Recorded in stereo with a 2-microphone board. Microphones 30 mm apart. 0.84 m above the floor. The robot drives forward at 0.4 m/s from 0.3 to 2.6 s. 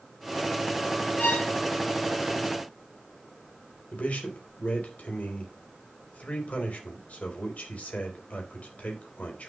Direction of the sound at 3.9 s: 55° left (ahead or behind).